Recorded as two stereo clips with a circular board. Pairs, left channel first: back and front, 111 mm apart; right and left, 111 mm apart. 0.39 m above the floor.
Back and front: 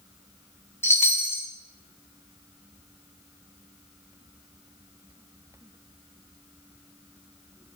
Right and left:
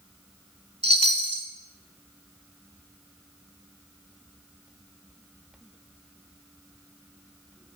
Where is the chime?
115° left, 0.7 m.